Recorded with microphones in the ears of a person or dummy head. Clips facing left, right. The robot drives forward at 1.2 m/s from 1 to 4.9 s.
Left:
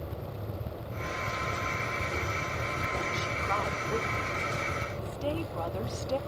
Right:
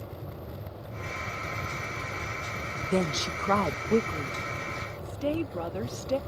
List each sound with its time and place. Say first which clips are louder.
2.9 s a woman speaking: right 6 dB; 75° right (ahead or behind); by 6.2 s 35° right (ahead or behind)